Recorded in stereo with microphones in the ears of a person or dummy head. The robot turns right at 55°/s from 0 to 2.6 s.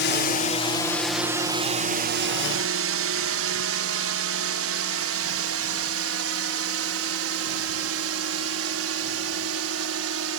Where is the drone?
50° left (ahead or behind); by 10.4 s 80° right.